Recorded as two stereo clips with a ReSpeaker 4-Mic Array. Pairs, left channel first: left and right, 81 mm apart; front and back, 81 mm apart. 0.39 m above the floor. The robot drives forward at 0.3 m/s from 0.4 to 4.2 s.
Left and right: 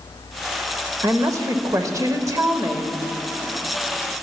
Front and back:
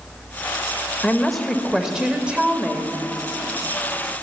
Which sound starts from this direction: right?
A woman speaking, at 1.0 s.